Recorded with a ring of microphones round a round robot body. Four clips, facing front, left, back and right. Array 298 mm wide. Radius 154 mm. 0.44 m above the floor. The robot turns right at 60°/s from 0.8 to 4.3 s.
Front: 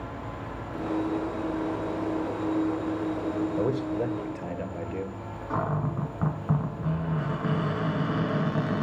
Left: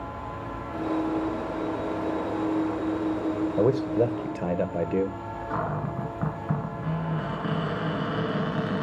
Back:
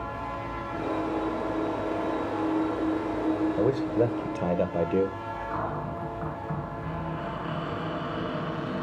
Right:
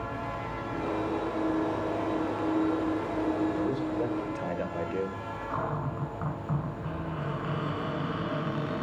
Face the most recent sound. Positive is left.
turn(degrees=15)